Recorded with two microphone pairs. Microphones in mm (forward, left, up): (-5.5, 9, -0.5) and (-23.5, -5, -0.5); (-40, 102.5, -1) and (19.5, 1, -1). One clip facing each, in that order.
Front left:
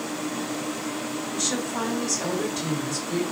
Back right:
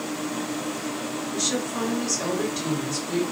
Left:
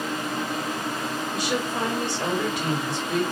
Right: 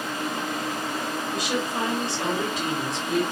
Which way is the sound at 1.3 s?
95° right.